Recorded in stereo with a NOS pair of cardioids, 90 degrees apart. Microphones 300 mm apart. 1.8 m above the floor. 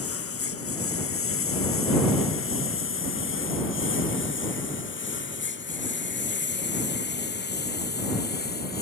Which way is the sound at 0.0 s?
45° left.